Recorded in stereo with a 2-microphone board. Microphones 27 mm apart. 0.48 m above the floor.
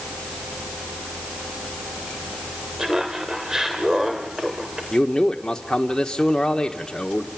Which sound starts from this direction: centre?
Laughter, at 2.8 s.